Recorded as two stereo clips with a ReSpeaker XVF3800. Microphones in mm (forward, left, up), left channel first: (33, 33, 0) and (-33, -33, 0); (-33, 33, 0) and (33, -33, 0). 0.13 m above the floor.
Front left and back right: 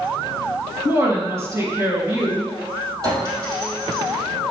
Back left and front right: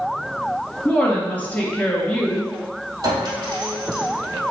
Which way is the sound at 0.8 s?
165° right.